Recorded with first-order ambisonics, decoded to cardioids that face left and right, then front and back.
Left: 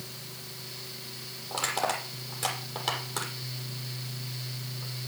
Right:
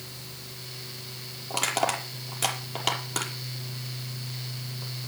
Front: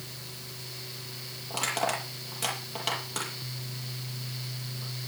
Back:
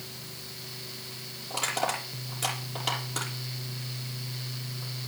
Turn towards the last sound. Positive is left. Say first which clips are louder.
# right 3 dB, even
turn(degrees=-80)